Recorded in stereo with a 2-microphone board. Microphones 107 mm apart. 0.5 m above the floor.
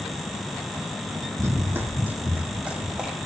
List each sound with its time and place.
1.4 s running footsteps: 25° right (ahead or behind), 1.3 m; by 3.2 s 10° right (ahead or behind), 2.5 m